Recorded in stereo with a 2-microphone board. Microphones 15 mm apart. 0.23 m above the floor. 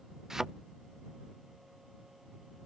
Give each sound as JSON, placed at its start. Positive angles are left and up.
{"t": 0.3, "sound": "a thud", "side_deg": -35}